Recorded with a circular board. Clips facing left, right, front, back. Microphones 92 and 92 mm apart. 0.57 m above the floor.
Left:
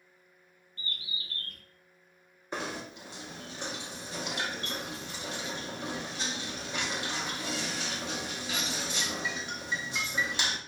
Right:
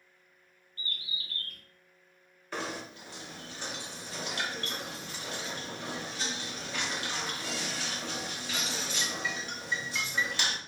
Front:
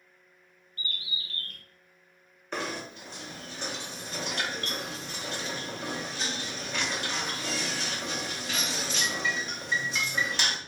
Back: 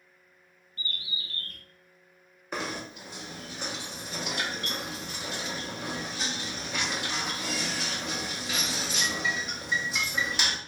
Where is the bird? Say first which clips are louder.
Even, even; 145° left, 0.7 m.